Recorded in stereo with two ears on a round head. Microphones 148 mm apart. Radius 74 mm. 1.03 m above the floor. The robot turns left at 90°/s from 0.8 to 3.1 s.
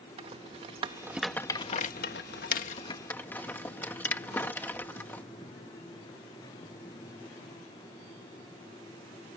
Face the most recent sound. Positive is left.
turn(degrees=10)  # may be behind; listen again after turning